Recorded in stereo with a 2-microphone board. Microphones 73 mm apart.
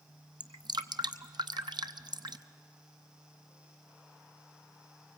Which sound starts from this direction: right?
Dripping, at 0.4 s.